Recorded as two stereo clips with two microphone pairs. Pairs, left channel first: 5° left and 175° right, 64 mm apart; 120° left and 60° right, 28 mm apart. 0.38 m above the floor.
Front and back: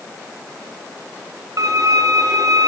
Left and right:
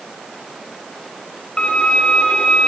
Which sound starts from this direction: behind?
A violin, at 1.6 s.